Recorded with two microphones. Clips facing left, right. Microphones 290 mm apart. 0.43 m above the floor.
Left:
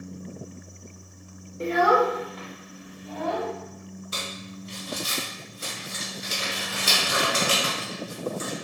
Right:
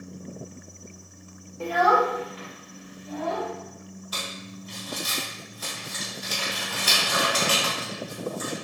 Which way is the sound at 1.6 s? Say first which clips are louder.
Left 2 dB; 20° left (ahead or behind).